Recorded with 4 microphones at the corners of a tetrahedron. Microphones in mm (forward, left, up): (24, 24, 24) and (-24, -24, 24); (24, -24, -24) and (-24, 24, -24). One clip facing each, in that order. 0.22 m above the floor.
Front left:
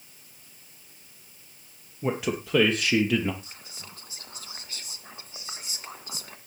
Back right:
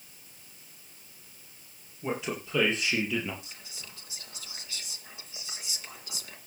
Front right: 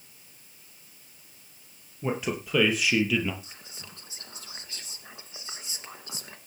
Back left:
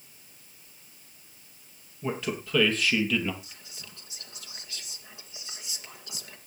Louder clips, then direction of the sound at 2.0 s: Front left 5 dB, front right 2 dB; 25° left.